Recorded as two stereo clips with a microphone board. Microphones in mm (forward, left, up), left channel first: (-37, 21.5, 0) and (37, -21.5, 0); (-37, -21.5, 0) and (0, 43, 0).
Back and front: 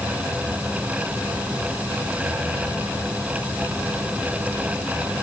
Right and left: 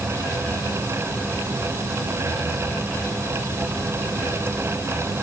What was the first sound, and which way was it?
Only background noise.